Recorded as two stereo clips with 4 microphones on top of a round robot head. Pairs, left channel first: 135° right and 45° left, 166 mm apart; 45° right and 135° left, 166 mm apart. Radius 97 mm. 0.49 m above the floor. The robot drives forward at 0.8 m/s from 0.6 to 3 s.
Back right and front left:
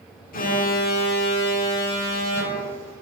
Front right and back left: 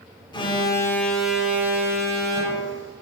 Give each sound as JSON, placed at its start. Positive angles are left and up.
{"t": 0.3, "sound": "an alarm", "azimuth_deg": -105, "distance_m": 0.9}